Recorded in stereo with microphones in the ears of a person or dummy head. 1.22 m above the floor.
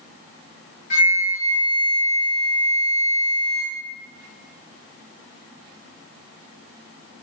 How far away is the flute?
About 1.5 m.